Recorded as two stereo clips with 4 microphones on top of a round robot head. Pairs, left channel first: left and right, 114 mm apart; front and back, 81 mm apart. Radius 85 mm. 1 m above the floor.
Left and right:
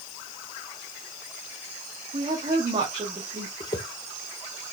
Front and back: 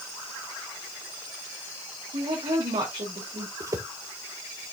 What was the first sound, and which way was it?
A woman speaking, 145° right.